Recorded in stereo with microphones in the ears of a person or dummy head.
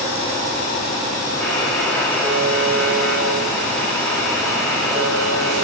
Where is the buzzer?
10° left (ahead or behind), 5.5 m.